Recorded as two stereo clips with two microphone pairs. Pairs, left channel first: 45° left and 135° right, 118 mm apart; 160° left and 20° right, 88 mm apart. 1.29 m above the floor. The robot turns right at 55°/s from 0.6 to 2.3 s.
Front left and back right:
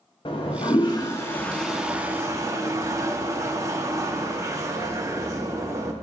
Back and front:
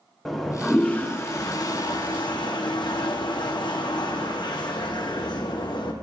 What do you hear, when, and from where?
0.2 s a toilet flushing: 75° left, 0.7 m; by 5.9 s 170° left, 0.7 m